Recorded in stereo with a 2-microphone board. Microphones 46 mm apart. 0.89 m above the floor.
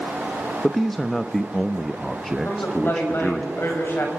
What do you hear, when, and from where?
0.6 s a man speaking: 10° left (ahead or behind), 0.8 m
2.5 s a woman speaking: 55° left (ahead or behind), 5.5 m